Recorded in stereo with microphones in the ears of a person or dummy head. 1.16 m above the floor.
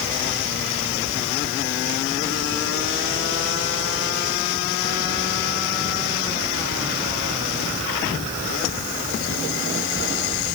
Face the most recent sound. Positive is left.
No sound to turn to.